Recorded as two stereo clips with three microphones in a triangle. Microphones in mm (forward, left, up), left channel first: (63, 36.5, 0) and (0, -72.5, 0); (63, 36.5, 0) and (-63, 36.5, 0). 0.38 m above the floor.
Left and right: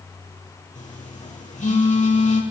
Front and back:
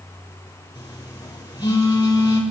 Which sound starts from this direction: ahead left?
A phone buzzing, at 0.8 s.